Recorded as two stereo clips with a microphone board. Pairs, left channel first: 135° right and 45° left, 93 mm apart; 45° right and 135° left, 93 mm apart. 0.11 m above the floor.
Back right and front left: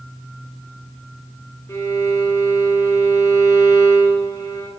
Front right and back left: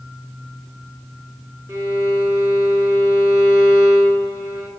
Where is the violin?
175° right, 1.6 m.